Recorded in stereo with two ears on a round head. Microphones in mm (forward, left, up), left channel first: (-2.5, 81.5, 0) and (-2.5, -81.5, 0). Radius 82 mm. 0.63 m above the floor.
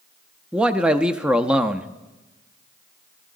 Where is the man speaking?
5° right (ahead or behind), 0.6 m.